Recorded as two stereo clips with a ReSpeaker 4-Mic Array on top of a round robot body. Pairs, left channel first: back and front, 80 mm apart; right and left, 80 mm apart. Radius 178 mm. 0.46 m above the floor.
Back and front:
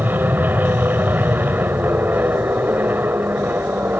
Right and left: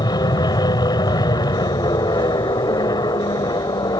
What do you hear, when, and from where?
0.0 s an aircraft: 65° right